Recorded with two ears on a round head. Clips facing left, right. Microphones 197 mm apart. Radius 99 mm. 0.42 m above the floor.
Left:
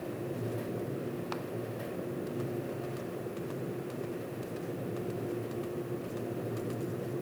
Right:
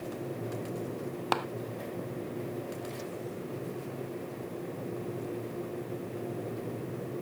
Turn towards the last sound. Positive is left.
turn(degrees=-75)  # may be behind; listen again after turning